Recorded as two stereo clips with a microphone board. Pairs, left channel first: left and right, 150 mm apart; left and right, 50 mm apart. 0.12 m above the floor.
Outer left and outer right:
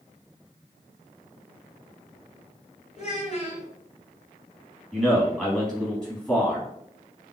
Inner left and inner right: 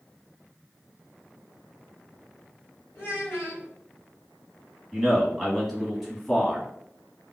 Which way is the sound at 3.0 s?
50° left (ahead or behind).